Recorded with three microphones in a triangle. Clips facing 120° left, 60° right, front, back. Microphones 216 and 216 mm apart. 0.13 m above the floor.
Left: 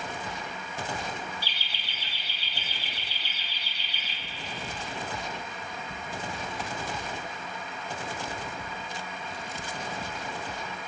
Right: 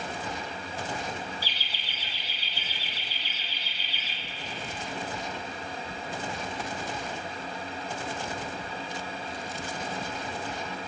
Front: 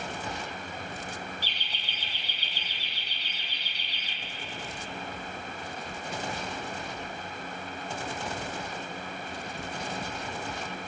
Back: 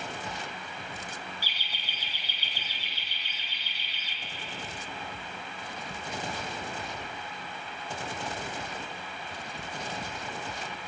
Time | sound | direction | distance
1.4 | laughter | 100° left | 3.5 m